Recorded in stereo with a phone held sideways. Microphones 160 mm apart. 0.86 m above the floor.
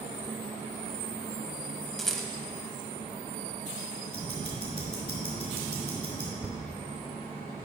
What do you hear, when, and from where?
2.0 s a rattle: centre (ahead or behind), 0.7 m
4.1 s ticking: 35° left (ahead or behind), 2.5 m
6.4 s a thud: 10° right (ahead or behind), 0.6 m